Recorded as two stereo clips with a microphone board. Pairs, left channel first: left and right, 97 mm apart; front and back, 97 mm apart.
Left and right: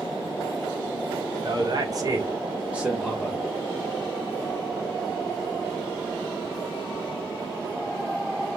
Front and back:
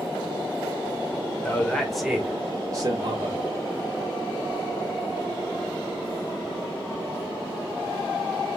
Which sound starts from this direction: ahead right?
A man speaking, at 1.4 s.